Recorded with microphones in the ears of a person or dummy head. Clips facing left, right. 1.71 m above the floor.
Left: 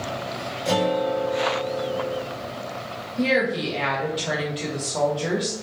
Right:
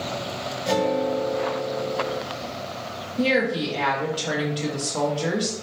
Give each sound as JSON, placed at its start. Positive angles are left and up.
{"t": 0.7, "sound": "a guitar", "side_deg": 25, "distance_m": 1.2}
{"t": 3.2, "sound": "a woman speaking", "side_deg": 5, "distance_m": 0.6}